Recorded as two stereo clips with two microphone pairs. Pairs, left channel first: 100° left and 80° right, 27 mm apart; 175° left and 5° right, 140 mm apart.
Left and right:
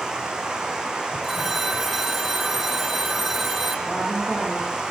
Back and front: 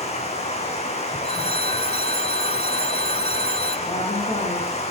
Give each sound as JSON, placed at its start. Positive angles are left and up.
{"t": 0.0, "sound": "running water", "azimuth_deg": -145, "distance_m": 4.0}
{"t": 1.2, "sound": "a phone ringing", "azimuth_deg": -160, "distance_m": 1.5}
{"t": 3.9, "sound": "a woman speaking", "azimuth_deg": -140, "distance_m": 9.5}